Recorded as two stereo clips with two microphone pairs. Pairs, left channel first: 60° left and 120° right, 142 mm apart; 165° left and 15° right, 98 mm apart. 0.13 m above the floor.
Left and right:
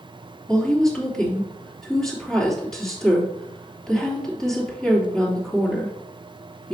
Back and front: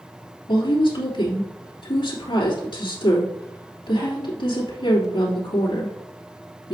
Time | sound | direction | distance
0.5 | a woman speaking | 145° left | 3 m